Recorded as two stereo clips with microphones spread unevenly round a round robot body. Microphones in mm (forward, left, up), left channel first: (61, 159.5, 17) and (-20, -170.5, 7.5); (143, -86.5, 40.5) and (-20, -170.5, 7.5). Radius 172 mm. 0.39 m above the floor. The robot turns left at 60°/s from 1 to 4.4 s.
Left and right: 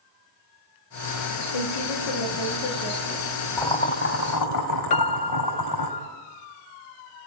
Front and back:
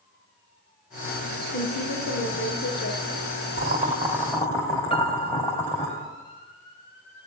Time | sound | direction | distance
1.5 | a woman speaking | 80° left | 6 m
3.6 | boiling | 165° left | 3 m
4.9 | a piano | 100° left | 0.7 m